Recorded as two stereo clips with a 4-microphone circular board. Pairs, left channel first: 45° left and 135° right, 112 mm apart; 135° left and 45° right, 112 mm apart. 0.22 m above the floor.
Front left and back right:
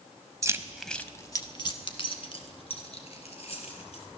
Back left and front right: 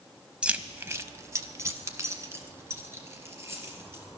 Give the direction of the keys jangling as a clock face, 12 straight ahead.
4 o'clock.